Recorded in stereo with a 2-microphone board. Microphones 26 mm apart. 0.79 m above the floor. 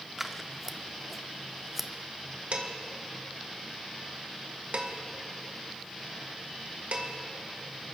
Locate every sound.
0.2 s scissors: 15° right (ahead or behind), 0.6 m
2.5 s dishes clattering: 80° right, 2.0 m